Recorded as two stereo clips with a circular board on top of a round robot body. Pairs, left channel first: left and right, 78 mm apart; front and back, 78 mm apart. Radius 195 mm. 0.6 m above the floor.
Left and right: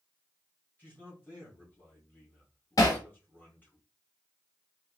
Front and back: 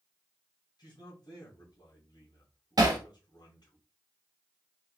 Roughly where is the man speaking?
Ahead left.